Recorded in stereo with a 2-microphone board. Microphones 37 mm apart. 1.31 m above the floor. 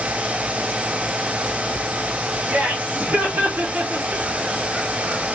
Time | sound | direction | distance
2.5 | laughter | 75° right (ahead or behind) | 1.9 m